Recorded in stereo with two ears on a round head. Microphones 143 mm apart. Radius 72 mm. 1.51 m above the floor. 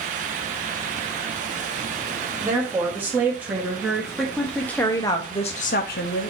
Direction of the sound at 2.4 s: 15° right (ahead or behind).